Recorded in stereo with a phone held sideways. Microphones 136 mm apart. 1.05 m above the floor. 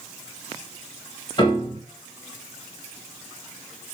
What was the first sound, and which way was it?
A piano, 35° left (ahead or behind).